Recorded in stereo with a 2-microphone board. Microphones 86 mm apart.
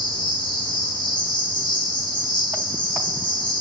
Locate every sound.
0.0 s an insect: 65° left (ahead or behind), 0.9 m